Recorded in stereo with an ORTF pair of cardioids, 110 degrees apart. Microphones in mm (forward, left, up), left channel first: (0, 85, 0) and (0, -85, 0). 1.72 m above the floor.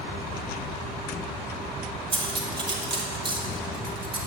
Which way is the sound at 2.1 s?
30° right.